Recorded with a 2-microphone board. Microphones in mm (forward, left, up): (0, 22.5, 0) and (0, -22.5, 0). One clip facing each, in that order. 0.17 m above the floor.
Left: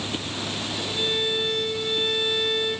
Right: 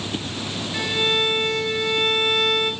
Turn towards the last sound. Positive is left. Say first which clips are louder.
# right 6 dB
turn(degrees=-60)  # may be behind; listen again after turning